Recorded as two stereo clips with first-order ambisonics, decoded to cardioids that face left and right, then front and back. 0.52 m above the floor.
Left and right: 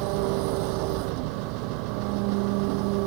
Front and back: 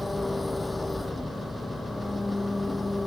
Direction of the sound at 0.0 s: 80° right.